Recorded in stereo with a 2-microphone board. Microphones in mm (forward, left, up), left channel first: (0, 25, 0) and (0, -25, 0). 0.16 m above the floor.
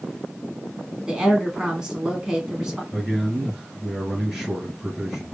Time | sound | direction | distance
1.1 | a woman speaking | 15° right (ahead or behind) | 1.2 m
2.9 | a man speaking | 5° right (ahead or behind) | 2 m